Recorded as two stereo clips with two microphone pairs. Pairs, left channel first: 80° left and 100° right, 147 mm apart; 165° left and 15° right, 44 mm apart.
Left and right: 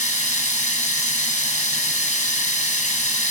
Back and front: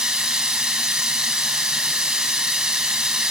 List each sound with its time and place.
0.0 s running water: 55° left, 3 m